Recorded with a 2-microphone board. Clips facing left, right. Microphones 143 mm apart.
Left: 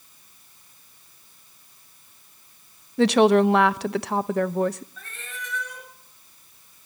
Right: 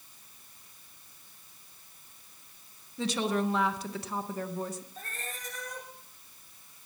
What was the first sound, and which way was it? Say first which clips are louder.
A woman speaking: left 13 dB; 70° left (ahead or behind).